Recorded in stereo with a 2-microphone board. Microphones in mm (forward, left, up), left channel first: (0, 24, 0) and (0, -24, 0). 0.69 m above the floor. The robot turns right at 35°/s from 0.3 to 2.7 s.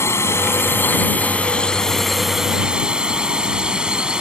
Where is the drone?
115° left; by 4.2 s 160° right.